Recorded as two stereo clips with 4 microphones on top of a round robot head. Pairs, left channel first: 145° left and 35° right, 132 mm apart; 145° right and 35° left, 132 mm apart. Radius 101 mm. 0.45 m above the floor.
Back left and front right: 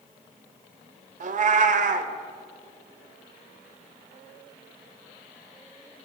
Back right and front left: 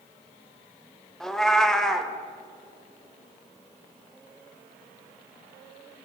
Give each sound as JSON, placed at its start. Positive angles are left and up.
{"t": 1.2, "sound": "a cat meowing", "azimuth_deg": -60, "distance_m": 0.8}